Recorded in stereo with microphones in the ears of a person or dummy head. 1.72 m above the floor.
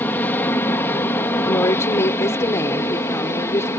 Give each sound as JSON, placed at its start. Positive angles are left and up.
{"t": 0.0, "sound": "an aircraft", "side_deg": 15}
{"t": 1.4, "sound": "a woman speaking", "side_deg": 20}